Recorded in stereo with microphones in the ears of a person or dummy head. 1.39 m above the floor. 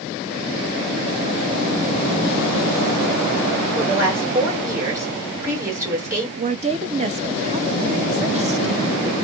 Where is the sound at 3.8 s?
20° right (ahead or behind), 2 m.